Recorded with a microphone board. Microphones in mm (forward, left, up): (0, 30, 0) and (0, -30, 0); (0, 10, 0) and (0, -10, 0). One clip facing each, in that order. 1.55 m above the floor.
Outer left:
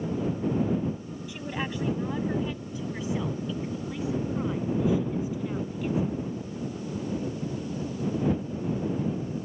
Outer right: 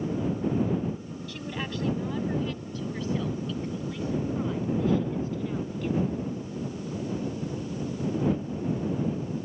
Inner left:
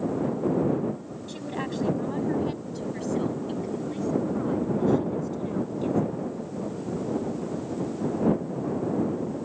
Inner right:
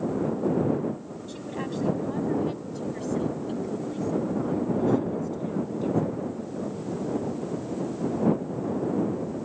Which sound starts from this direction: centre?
A woman speaking, at 1.3 s.